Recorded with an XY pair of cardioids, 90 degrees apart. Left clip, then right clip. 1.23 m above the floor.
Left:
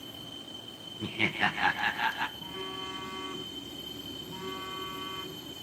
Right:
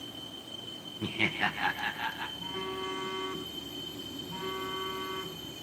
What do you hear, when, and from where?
1.0 s laughter: 10° right, 0.6 m; by 2.3 s 50° left, 1.3 m
2.4 s a phone buzzing: 25° right, 7.5 m